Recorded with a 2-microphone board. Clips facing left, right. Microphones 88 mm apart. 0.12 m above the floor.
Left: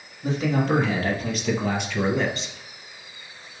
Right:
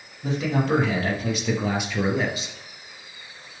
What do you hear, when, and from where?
0.2 s a man speaking: centre (ahead or behind), 4 m; by 2.6 s 5° right (ahead or behind), 2.5 m